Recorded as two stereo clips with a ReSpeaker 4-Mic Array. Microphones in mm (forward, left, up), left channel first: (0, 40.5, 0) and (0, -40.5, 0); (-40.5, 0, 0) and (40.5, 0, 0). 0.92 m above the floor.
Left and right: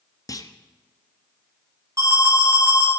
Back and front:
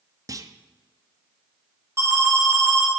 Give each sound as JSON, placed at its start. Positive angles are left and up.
{"t": 0.3, "sound": "a clunk", "azimuth_deg": 45, "distance_m": 0.5}
{"t": 2.0, "sound": "an alarm", "azimuth_deg": -50, "distance_m": 1.9}